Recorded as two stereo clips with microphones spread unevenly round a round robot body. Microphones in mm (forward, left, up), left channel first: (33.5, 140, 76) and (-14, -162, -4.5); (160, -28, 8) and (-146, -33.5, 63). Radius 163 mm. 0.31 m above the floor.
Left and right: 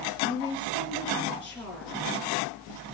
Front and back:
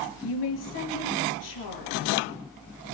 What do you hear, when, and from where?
0.2 s a woman speaking: 10° right, 6 m